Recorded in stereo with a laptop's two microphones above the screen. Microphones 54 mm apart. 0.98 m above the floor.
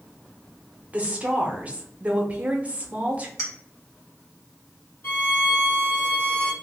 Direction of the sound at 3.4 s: 60° left (ahead or behind).